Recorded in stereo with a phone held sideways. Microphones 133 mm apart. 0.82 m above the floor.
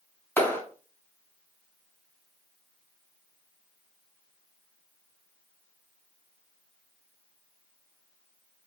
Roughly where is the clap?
Centre.